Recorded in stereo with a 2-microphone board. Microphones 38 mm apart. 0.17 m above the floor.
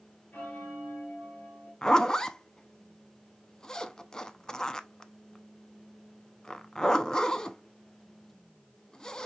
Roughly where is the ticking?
I don't hear ticking.